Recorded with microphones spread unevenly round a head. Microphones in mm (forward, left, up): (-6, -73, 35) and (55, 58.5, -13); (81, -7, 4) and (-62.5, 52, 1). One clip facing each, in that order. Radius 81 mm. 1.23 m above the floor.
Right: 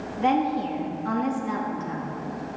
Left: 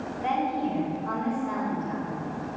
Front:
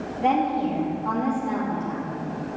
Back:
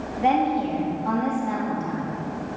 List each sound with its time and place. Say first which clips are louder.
0.2 s a woman speaking: right 5 dB, back 1 dB; 120° right, 3 m